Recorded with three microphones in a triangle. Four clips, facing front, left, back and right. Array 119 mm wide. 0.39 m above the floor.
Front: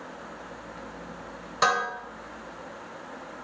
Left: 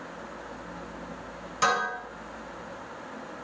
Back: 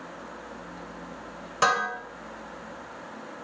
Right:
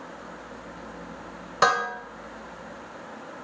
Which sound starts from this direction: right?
Dishes clattering, at 1.6 s.